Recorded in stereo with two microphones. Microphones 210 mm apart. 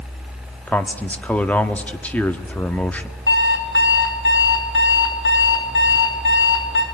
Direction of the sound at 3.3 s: 70° left (ahead or behind).